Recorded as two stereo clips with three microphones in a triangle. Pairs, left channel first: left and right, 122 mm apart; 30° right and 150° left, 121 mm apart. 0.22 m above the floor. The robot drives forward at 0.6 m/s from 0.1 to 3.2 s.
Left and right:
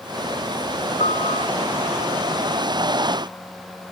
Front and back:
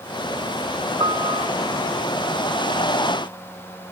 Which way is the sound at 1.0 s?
100° left.